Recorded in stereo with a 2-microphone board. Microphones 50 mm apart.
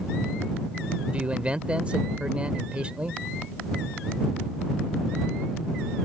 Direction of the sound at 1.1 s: 25° right (ahead or behind).